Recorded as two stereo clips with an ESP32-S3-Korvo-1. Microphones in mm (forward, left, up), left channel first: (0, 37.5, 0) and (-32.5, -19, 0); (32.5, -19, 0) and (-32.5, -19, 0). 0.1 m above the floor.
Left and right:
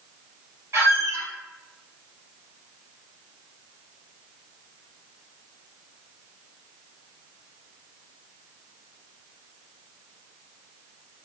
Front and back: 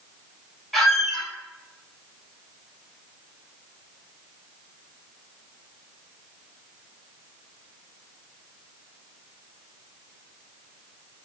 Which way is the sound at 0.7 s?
85° right.